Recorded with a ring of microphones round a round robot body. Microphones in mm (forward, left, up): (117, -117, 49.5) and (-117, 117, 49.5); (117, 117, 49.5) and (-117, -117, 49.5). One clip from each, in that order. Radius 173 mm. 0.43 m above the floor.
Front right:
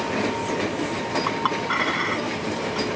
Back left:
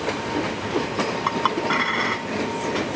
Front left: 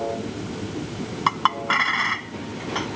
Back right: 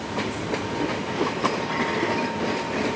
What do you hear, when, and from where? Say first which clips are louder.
1.3 s a clink: back left 3 dB, front left 10 dB; 60° left